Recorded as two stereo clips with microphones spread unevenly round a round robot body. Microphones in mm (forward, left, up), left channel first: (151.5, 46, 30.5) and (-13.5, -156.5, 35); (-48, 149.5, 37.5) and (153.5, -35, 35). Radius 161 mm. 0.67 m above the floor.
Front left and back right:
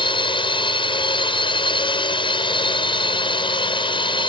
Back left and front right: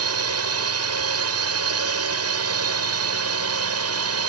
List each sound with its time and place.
0.0 s a drone: 20° right